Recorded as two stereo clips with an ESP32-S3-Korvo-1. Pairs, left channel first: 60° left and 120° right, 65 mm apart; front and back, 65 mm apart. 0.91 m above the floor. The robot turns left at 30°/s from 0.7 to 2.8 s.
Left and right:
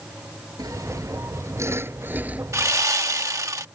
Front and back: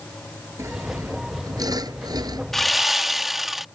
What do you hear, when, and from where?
0.6 s sawing: 135° right; by 2.4 s 170° left
2.5 s sawing: 85° right; by 3.6 s 95° right